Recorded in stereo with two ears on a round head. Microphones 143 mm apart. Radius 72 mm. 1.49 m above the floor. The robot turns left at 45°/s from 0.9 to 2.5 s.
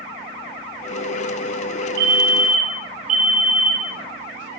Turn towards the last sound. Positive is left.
turn(degrees=-50)  # may be behind; listen again after turning